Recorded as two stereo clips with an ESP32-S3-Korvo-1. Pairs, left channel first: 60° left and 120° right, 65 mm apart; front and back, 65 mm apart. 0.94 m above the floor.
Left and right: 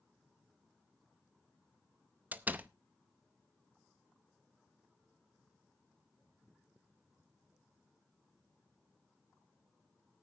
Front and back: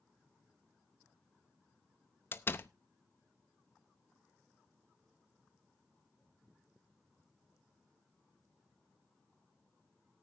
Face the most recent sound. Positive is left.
turn(degrees=-55)